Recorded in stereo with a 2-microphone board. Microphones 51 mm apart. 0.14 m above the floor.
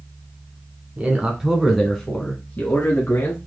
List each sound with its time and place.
1.0 s a man speaking: 25° right (ahead or behind), 1.8 m; by 3.4 s 50° left (ahead or behind), 2 m